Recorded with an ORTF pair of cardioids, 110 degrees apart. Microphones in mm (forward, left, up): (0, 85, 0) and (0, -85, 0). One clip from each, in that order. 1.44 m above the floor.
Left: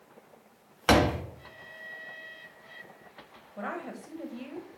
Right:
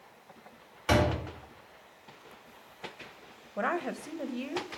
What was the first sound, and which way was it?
A door slam, 55° left.